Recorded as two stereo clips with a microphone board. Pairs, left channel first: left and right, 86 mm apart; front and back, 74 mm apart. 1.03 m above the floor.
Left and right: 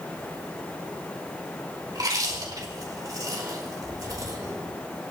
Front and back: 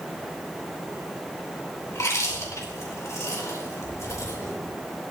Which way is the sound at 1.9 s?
45° right.